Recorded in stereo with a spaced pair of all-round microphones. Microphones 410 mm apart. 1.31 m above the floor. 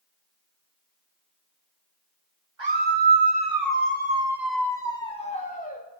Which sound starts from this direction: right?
A scream, at 2.6 s.